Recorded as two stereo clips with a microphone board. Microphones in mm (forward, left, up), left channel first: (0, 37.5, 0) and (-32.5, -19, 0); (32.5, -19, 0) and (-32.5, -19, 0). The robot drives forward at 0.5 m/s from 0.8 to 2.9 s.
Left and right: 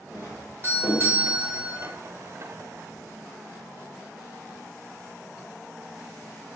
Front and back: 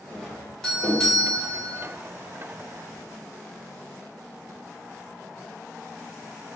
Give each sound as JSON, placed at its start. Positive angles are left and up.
{"t": 0.1, "sound": "a doorbell", "azimuth_deg": -80, "distance_m": 1.9}